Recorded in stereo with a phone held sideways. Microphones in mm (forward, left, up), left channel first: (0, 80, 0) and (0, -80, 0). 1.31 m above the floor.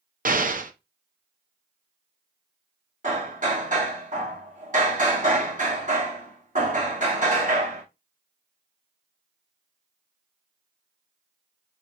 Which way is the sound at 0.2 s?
55° right (ahead or behind).